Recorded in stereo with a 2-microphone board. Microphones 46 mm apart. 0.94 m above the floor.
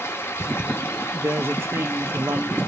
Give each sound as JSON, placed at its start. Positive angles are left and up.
{"t": 0.0, "sound": "running water", "side_deg": 75, "distance_m": 0.8}
{"t": 1.1, "sound": "a woman speaking", "side_deg": -60, "distance_m": 0.7}